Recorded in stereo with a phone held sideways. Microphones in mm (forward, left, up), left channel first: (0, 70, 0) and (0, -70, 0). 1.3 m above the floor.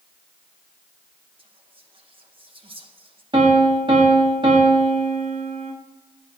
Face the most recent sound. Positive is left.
turn(degrees=-35)  # may be behind; listen again after turning